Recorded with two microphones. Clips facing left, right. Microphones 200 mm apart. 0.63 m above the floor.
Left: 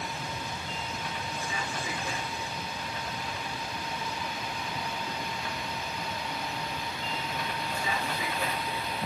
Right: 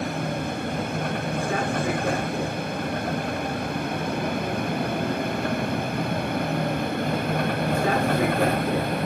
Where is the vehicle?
55° right (ahead or behind).